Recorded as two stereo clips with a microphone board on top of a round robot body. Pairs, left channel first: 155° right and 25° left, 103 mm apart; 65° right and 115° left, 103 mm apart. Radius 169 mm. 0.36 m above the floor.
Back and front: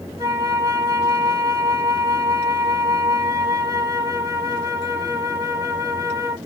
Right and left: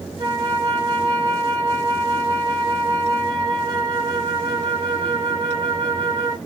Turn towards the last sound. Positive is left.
turn(degrees=70)